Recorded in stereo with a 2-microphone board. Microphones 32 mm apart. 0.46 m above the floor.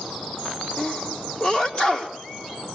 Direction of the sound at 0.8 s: 35° left (ahead or behind).